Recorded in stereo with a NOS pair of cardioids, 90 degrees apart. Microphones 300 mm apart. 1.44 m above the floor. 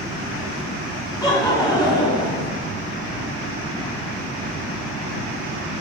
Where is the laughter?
15° left, 3 m.